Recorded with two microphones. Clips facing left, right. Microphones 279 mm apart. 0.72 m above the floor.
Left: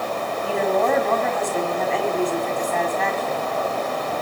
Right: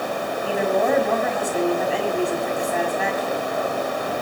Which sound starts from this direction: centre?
A woman speaking, at 0.4 s.